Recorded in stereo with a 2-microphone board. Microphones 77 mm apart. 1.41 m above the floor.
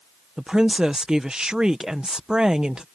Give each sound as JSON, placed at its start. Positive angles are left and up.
{"t": 0.4, "sound": "a woman speaking", "side_deg": -10}